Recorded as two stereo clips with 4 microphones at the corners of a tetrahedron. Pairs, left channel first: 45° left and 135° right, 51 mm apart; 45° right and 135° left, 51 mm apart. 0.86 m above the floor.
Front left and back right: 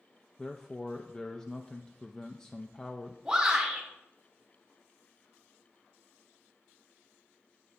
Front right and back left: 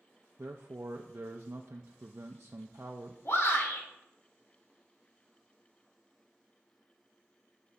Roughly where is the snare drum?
I don't hear a snare drum.